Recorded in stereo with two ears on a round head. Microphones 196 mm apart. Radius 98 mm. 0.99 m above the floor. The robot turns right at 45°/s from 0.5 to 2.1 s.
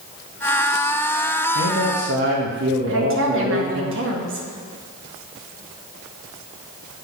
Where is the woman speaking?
60° right (ahead or behind), 1.6 m.